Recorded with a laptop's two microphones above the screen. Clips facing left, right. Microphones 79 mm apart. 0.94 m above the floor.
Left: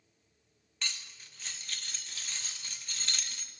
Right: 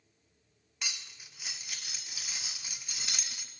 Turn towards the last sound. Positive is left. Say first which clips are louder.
# even
turn(degrees=-10)  # may be behind; listen again after turning